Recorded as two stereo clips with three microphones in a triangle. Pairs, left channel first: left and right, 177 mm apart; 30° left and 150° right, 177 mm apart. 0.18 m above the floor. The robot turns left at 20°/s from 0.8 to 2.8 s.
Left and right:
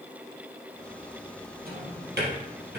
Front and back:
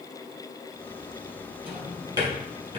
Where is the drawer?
70° right, 3.5 m; by 2.8 s 95° right, 3.5 m.